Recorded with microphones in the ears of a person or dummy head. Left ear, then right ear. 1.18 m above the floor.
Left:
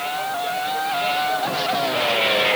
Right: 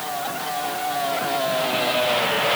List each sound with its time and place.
Only background noise.